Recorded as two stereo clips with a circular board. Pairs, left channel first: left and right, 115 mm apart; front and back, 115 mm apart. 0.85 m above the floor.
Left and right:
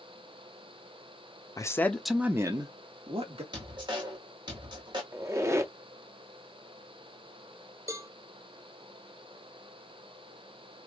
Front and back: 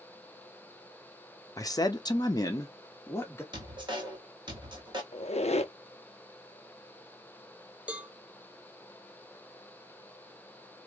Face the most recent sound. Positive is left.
turn(degrees=-115)